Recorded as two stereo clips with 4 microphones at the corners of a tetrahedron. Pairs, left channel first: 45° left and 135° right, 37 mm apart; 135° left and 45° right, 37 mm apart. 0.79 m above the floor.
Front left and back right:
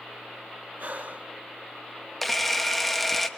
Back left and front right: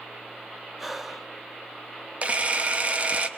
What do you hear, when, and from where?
0.8 s breathing: 125° right, 0.6 m
2.2 s a camera shutter: 40° right, 0.9 m